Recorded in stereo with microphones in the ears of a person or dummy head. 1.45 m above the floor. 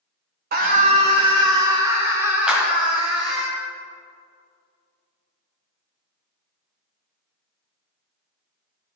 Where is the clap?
5° right (ahead or behind), 0.8 m.